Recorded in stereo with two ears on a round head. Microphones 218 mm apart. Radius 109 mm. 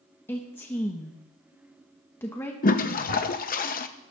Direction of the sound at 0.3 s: 10° left (ahead or behind).